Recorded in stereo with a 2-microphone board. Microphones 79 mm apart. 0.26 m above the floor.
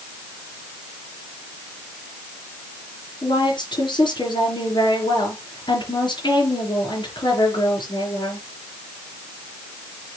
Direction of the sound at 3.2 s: 75° left (ahead or behind).